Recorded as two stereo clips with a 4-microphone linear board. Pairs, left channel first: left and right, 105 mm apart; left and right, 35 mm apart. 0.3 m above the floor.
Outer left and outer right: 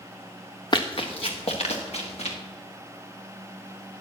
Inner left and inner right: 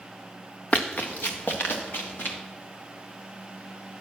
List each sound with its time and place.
0.7 s running footsteps: 45° left (ahead or behind), 1.5 m; by 2.4 s 80° left, 3 m